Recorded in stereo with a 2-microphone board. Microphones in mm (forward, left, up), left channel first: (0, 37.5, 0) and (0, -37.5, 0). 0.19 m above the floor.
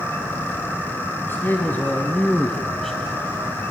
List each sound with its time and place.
1.2 s a man speaking: 35° left (ahead or behind), 1.8 m; by 3.6 s 5° right (ahead or behind), 1.9 m